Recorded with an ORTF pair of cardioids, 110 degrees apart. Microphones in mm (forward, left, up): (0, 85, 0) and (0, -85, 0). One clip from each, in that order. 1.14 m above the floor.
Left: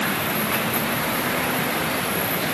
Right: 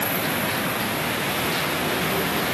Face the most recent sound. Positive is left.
No sound to turn to.